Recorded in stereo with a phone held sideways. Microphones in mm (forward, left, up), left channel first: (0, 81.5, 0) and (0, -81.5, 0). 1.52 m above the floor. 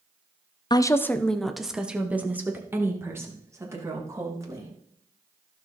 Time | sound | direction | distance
0.7 | a woman speaking | 25° left (ahead or behind) | 0.5 m